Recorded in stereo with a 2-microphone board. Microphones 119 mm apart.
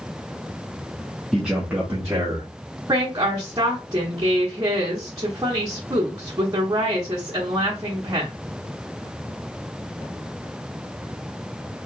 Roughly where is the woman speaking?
Right.